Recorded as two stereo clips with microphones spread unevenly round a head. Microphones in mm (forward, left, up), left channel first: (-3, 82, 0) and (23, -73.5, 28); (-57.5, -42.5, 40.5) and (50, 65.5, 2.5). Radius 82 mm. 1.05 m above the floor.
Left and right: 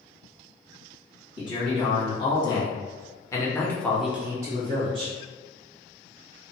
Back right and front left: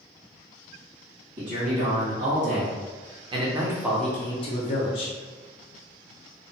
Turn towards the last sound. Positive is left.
turn(degrees=-140)